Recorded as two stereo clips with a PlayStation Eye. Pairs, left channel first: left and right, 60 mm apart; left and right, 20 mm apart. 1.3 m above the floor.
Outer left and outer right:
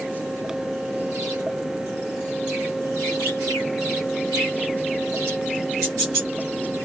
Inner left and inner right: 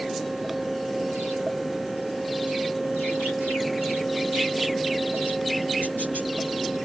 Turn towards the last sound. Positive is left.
No sound to turn to.